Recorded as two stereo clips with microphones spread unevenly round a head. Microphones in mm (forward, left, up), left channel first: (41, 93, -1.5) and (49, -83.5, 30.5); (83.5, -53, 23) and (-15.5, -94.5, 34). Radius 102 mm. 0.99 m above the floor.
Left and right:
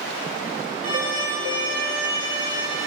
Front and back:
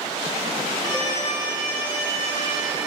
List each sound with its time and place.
0.8 s a violin: 100° right, 2.5 m